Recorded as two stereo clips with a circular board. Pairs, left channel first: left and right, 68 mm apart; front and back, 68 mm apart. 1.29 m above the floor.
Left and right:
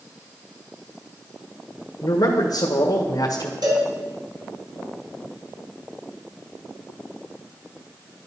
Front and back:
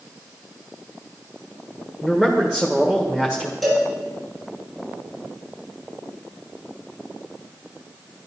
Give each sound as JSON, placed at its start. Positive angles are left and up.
{"t": 2.0, "sound": "a man speaking", "azimuth_deg": 85, "distance_m": 1.6}
{"t": 3.6, "sound": "a cowbell", "azimuth_deg": -90, "distance_m": 4.0}